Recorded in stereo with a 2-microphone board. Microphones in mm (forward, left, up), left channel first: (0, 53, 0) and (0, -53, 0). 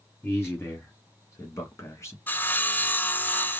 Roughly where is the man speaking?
Left.